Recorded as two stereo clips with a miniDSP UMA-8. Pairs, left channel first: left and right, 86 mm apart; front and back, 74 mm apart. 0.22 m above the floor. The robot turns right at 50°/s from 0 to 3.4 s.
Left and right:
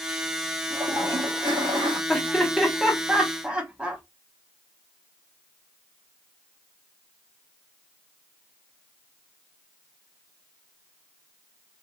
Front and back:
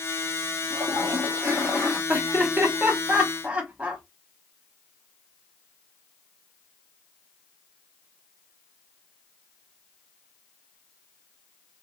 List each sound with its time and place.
0.7 s a toilet flushing: 155° right, 1.9 m; by 2.0 s 90° right, 1.9 m
2.1 s laughter: 155° left, 1.0 m; by 4.0 s 140° right, 1.0 m